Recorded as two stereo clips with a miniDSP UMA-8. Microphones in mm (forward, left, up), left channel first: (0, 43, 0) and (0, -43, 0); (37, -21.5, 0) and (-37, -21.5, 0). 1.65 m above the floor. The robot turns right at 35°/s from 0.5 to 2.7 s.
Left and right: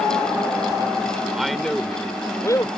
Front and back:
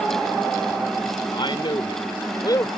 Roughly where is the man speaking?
Ahead.